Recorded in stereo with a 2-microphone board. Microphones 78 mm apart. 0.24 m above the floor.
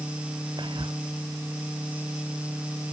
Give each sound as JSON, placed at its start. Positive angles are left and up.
{"t": 0.6, "sound": "whispering", "side_deg": -80}